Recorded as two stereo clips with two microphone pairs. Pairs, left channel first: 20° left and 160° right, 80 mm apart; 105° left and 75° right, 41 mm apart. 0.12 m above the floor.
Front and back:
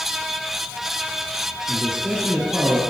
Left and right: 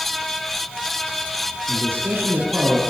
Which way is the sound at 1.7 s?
75° right.